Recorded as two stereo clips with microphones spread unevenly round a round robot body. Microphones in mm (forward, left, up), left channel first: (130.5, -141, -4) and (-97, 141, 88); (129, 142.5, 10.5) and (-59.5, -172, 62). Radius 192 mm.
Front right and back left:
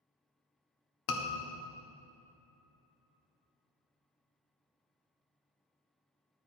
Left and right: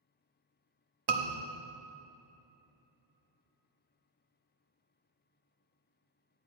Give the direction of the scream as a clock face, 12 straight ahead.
3 o'clock.